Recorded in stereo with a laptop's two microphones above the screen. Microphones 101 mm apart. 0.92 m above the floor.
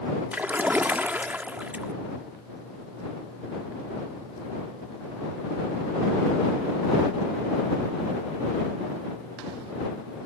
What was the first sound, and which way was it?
A splash, 15° right (ahead or behind).